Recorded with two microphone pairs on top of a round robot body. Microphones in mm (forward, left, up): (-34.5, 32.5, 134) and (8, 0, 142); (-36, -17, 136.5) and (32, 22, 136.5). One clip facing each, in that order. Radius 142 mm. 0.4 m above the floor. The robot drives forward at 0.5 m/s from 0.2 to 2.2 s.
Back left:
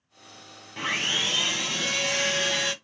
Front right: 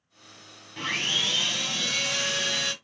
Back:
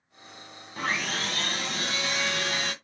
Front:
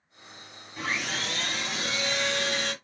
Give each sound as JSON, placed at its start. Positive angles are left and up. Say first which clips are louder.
{"t": 0.8, "sound": "sawing", "louder": "back left 1 dB, back 2 dB", "azimuth_deg": -155, "distance_m": 1.2}